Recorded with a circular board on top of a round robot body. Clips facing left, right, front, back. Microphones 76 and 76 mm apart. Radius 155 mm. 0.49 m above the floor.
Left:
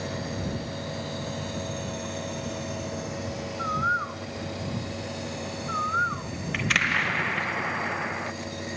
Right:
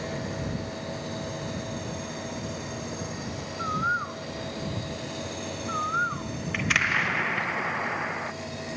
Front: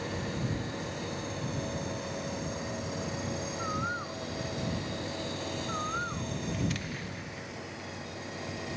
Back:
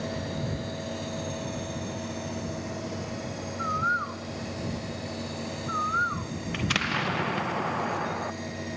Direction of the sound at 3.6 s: 170° left.